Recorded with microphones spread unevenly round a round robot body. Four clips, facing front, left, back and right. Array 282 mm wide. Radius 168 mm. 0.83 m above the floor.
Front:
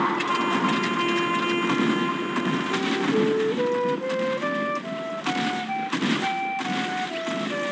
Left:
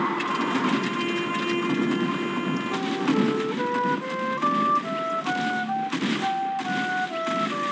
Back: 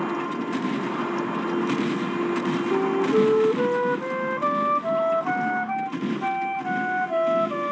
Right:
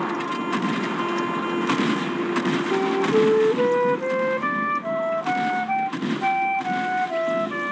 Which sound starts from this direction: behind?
A flute, at 2.7 s.